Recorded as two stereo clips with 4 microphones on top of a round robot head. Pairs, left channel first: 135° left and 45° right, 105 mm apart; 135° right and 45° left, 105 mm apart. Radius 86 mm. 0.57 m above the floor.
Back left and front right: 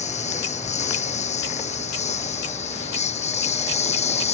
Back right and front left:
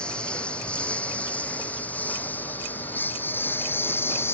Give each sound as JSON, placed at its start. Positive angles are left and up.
{"t": 0.0, "sound": "a lawn mower", "azimuth_deg": 140}